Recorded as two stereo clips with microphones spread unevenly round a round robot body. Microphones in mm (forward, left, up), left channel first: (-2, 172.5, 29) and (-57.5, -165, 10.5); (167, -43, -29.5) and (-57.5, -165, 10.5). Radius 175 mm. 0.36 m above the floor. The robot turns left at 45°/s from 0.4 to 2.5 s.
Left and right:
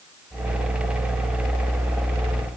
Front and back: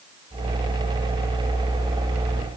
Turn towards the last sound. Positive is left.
No sound to turn to.